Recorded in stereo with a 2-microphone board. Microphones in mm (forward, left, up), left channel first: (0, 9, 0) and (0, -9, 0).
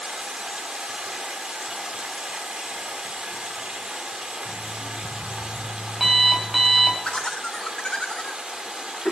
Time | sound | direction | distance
0.0 | running water | 70° right (ahead or behind) | 1.6 m
4.5 | an alarm clock | 15° right (ahead or behind) | 3 m
7.0 | laughter | 60° left (ahead or behind) | 1.6 m